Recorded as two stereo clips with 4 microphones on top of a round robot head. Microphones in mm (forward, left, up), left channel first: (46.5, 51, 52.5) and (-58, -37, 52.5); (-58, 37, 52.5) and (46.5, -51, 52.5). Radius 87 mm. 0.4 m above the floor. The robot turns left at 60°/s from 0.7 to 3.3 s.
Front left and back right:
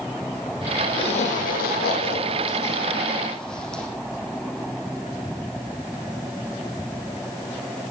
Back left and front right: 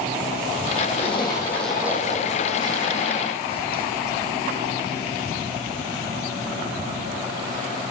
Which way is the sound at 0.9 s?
95° left.